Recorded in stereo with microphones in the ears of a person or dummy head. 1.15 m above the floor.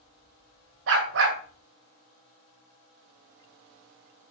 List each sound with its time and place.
0.9 s a dog barking: 75° right (ahead or behind), 2.5 m